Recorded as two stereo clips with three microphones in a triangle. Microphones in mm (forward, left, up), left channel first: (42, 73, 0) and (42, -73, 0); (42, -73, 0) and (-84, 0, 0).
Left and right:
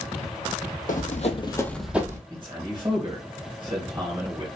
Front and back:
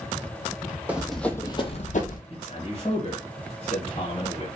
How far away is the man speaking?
About 1.5 m.